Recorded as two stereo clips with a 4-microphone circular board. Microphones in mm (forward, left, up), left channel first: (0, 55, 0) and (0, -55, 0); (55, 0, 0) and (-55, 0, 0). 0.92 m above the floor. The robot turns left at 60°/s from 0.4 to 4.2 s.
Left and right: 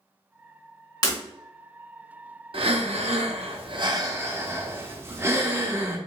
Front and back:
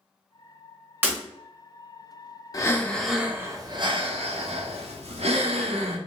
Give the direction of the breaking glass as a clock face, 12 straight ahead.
8 o'clock.